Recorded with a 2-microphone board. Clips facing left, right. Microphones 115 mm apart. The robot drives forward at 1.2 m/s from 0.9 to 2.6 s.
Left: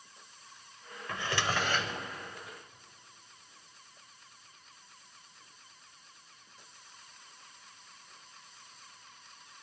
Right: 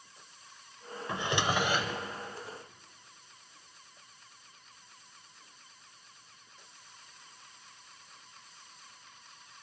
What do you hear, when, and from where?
1.1 s a drawer: 20° right (ahead or behind), 0.6 m; by 2.1 s 10° right (ahead or behind), 1.3 m